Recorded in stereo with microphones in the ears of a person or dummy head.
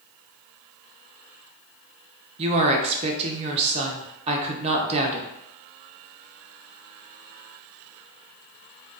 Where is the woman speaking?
30° right (ahead or behind), 0.7 m.